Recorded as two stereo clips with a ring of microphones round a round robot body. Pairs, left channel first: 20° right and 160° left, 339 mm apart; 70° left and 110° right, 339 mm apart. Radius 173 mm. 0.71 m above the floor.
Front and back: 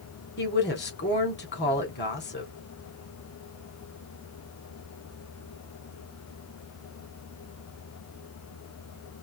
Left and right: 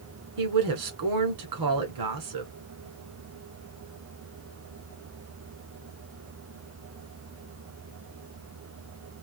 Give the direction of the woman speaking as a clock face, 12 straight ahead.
3 o'clock.